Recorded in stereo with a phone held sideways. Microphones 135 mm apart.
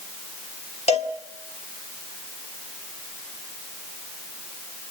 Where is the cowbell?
55° left (ahead or behind), 1.5 m.